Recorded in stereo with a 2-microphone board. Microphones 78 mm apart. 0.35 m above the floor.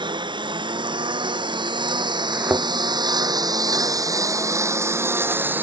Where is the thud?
25° right (ahead or behind).